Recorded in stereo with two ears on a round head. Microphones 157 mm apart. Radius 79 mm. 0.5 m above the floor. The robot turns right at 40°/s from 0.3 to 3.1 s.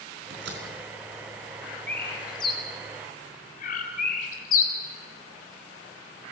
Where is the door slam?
75° right (ahead or behind), 4 m; by 0.7 s 60° right (ahead or behind), 4 m.